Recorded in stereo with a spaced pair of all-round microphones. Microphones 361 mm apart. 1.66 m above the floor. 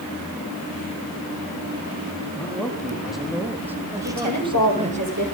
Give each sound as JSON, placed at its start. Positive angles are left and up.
{"t": 2.4, "sound": "a man speaking", "side_deg": 5, "distance_m": 4.5}
{"t": 4.0, "sound": "a woman speaking", "side_deg": -50, "distance_m": 8.0}